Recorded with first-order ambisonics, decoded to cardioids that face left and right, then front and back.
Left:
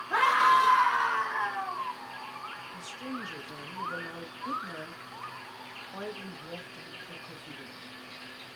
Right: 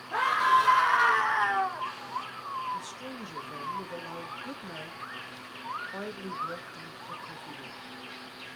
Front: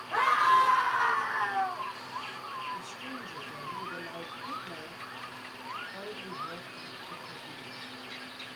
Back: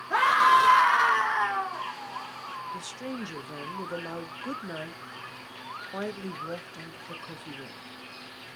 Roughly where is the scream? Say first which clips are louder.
Left 1 dB, back 4 dB; behind.